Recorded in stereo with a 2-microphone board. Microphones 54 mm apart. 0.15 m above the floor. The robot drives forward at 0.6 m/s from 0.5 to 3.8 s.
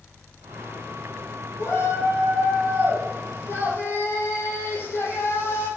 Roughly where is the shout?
Left.